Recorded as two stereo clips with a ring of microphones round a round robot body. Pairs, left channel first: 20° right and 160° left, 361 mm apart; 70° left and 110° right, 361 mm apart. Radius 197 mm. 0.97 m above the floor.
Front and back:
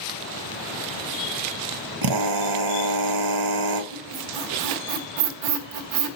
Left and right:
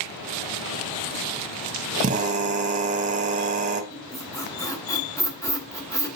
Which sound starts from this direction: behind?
A drill, at 2.0 s.